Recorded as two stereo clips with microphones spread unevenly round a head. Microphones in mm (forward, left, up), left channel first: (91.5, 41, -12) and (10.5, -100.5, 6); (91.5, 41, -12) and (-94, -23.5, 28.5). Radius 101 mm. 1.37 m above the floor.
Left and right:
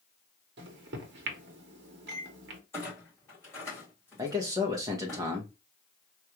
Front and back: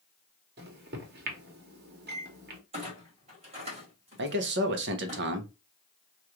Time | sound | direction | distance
0.6 | a microwave | 120° right | 0.9 m
2.7 | a clunk | 140° left | 2.0 m
4.2 | a man speaking | 170° left | 0.8 m